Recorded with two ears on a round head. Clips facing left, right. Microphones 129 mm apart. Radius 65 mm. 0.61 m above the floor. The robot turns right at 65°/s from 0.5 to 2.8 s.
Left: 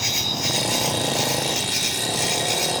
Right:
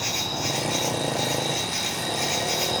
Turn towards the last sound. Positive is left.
turn(degrees=-170)